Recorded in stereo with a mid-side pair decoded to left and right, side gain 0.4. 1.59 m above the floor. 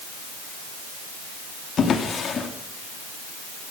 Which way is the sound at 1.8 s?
60° left.